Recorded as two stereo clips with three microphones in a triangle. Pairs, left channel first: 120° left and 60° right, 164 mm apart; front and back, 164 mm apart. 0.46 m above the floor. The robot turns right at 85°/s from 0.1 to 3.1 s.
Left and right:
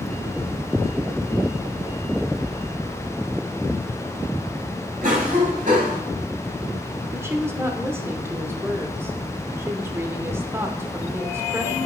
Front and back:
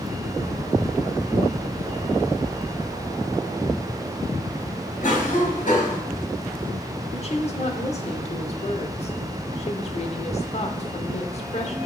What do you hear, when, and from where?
5.0 s a cough: 35° right, 2.5 m
7.1 s a woman speaking: 10° left, 0.9 m